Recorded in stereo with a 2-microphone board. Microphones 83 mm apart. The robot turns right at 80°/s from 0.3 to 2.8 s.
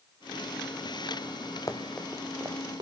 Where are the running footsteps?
40° left (ahead or behind), 2.5 m; by 2.8 s 65° right (ahead or behind), 2.5 m.